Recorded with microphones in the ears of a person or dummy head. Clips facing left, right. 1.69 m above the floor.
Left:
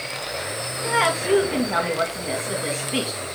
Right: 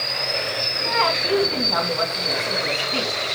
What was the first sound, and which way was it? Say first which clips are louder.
A woman speaking: left 2 dB; 15° left (ahead or behind).